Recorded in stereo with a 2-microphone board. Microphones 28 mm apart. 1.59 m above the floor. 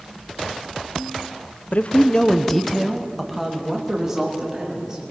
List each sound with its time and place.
1.7 s a man speaking: 65° left (ahead or behind), 1.1 m; by 5.0 s 25° right (ahead or behind), 5 m